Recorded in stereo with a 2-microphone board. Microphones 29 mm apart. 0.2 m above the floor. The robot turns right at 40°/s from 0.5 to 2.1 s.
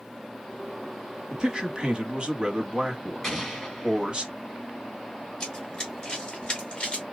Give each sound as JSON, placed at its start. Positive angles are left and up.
{"t": 1.3, "sound": "a man speaking", "azimuth_deg": -125, "distance_m": 1.3}
{"t": 3.2, "sound": "an explosion", "side_deg": 10, "distance_m": 3.5}
{"t": 5.4, "sound": "running footsteps", "side_deg": 25, "distance_m": 3.0}